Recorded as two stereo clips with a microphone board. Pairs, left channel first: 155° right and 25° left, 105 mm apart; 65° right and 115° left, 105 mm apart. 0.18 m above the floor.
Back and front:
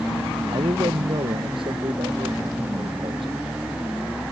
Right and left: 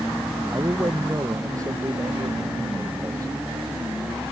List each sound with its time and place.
0.5 s a man speaking: 55° left